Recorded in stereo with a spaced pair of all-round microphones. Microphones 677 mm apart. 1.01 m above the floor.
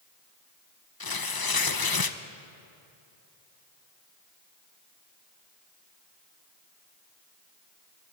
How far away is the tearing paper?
About 0.7 m.